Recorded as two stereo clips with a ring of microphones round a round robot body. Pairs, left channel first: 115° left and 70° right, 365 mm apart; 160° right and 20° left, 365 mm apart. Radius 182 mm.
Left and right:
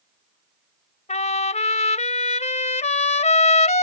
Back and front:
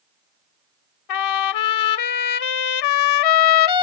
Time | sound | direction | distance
1.1 | a trumpet | 175° right | ?